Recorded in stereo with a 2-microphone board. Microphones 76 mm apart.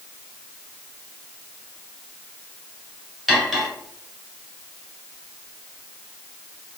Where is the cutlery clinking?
5° right (ahead or behind), 1.8 m.